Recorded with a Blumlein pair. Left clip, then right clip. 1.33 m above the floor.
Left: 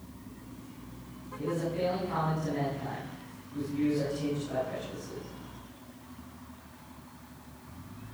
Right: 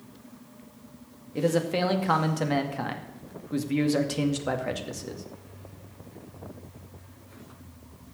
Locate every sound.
1.4 s a man speaking: 50° right, 2 m